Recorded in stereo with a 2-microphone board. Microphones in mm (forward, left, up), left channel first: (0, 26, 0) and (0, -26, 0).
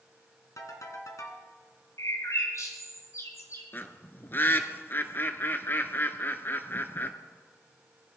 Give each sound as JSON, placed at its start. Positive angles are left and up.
{"t": 0.6, "sound": "a ringtone", "side_deg": 75, "distance_m": 2.0}
{"t": 2.0, "sound": "a bird", "side_deg": 65, "distance_m": 2.5}
{"t": 3.7, "sound": "a bird", "side_deg": 40, "distance_m": 1.0}